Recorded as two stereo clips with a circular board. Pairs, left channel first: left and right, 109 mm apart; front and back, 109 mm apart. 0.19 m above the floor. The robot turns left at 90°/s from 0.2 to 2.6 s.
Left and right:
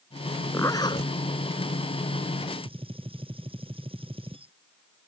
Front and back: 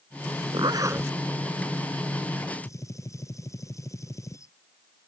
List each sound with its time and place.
0.5 s a zipper: 155° left; by 1.1 s 105° left
2.6 s a gunshot: 60° right